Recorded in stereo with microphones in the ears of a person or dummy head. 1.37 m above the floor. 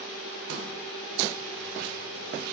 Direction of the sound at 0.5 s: 65° right (ahead or behind).